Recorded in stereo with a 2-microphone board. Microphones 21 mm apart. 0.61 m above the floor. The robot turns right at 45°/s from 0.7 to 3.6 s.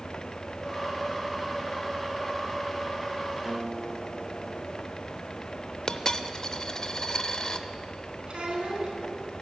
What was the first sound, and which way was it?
A guitar, 35° right (ahead or behind).